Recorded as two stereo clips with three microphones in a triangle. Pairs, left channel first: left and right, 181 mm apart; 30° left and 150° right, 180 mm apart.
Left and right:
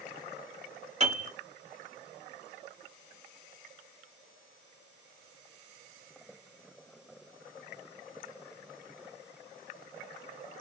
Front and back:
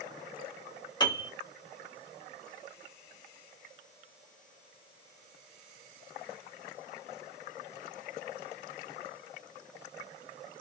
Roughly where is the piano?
Ahead right.